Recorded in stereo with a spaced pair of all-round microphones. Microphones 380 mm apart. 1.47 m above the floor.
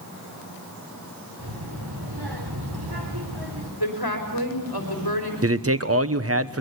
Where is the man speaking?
35° right (ahead or behind), 1.1 m.